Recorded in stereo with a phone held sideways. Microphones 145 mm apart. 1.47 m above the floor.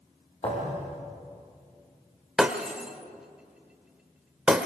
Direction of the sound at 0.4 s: 40° left (ahead or behind).